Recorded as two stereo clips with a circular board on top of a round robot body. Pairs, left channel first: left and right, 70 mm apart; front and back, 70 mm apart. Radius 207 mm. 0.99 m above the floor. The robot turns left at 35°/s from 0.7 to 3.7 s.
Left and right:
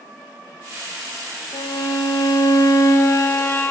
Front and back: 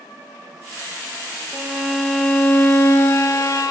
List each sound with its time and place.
1.5 s a violin: 105° left, 0.6 m; by 3.7 s 30° left, 0.6 m